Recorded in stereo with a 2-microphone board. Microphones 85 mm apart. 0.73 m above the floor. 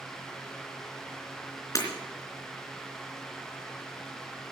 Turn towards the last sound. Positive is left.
turn(degrees=40)  # may be behind; listen again after turning